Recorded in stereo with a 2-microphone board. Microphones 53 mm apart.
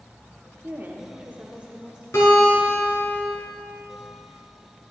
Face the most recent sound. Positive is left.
turn(degrees=65)  # may be behind; listen again after turning